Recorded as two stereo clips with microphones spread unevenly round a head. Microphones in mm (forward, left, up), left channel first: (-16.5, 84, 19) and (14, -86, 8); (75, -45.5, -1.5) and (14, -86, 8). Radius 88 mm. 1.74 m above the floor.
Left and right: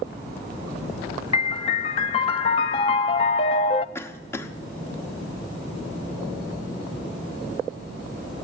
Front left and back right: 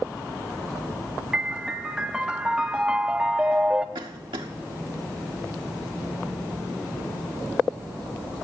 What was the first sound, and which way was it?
A piano, 140° left.